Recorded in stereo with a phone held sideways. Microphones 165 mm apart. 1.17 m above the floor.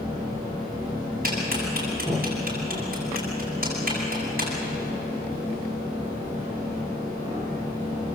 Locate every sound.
1.2 s a clap: 60° right (ahead or behind), 9 m